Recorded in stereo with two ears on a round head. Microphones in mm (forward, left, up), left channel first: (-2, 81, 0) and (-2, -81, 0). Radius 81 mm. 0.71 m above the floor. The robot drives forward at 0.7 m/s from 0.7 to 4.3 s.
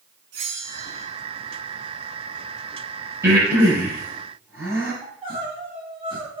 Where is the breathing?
15° right (ahead or behind), 8 m.